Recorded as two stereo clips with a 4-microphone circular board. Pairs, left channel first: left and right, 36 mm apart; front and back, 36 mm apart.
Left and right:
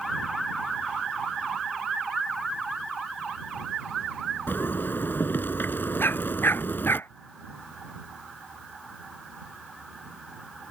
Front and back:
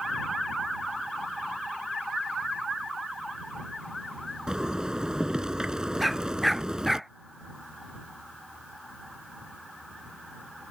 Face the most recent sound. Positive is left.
turn(degrees=90)